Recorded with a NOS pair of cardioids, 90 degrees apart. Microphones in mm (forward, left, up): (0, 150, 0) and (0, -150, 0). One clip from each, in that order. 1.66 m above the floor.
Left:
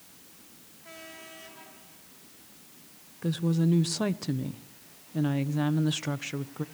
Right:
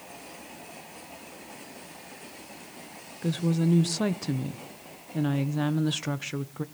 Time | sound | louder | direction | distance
3.2 | a woman speaking | right 1 dB | 5° right | 1.0 m